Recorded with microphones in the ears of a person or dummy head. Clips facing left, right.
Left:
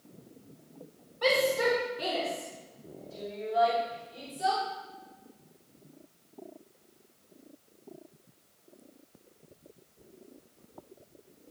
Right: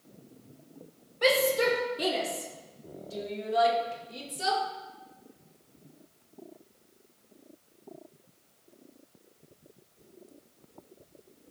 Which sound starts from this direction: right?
A shout, at 1.2 s.